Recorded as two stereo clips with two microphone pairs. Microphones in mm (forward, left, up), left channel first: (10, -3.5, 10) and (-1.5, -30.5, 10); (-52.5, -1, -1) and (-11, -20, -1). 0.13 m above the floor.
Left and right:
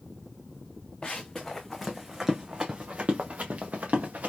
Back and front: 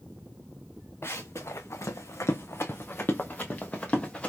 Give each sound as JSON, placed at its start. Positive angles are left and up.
{"t": 1.0, "sound": "running footsteps", "azimuth_deg": 130, "distance_m": 1.0}